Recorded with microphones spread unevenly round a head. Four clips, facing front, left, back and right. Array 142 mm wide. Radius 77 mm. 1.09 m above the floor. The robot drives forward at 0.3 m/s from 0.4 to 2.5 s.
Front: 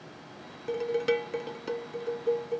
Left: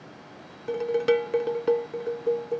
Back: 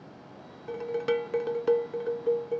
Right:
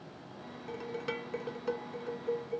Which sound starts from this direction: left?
Dishes clattering, at 0.7 s.